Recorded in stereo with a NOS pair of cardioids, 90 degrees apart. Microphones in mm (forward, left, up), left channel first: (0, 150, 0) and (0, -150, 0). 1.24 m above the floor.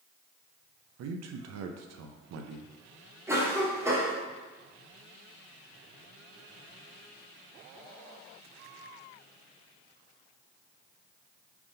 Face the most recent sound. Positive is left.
turn(degrees=-10)